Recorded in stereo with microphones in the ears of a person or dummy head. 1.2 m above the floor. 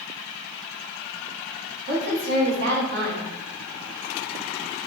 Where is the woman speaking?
60° right (ahead or behind), 1.6 m.